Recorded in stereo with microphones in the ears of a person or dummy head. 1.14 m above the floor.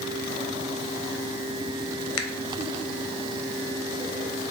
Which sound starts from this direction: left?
A finger snap, at 2.2 s.